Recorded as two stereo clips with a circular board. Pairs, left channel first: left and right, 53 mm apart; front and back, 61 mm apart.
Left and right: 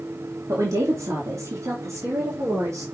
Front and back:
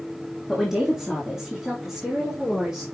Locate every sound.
0.5 s a woman speaking: 100° right, 1.7 m